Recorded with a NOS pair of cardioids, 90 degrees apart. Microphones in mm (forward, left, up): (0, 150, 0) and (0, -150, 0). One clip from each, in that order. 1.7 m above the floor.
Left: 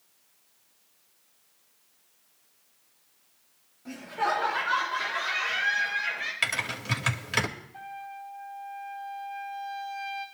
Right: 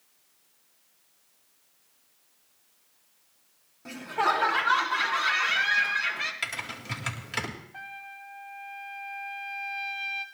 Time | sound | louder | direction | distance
3.9 | laughter | right 2 dB | 50° right | 4.5 m
6.4 | typing on a keyboard | left 5 dB | 30° left | 2.5 m
7.7 | a trumpet | left 1 dB | 35° right | 2.5 m